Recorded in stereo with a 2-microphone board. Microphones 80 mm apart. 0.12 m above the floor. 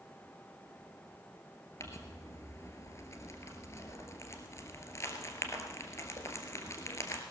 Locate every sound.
1.8 s crumpling: 40° left (ahead or behind), 1.8 m